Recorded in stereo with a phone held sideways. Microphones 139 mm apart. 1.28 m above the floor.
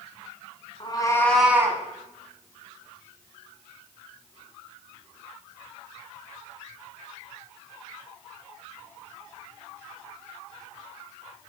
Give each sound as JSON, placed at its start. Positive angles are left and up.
{"t": 0.8, "sound": "a cat meowing", "side_deg": 40, "distance_m": 1.5}